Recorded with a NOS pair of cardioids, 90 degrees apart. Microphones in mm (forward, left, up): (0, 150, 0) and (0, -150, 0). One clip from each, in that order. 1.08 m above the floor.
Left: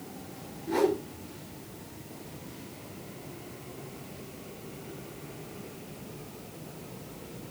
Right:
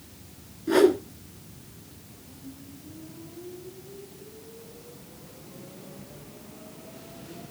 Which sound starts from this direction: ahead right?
A whoosh, at 0.7 s.